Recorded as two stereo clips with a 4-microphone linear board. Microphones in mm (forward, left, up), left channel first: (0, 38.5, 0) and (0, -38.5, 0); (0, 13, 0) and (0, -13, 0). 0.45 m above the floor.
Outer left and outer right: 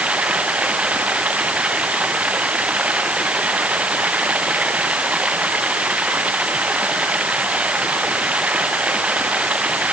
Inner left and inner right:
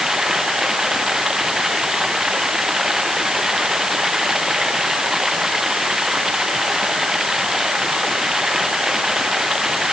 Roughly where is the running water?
Centre.